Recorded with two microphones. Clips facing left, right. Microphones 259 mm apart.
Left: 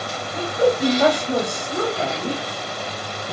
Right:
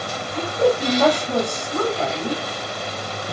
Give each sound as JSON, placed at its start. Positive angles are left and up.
{"t": 0.3, "sound": "a woman speaking", "side_deg": 10, "distance_m": 1.7}